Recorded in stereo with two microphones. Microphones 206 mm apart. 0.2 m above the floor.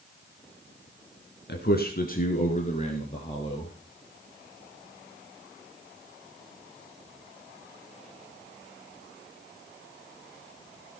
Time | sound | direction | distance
1.5 | a man speaking | 55° left (ahead or behind) | 2.5 m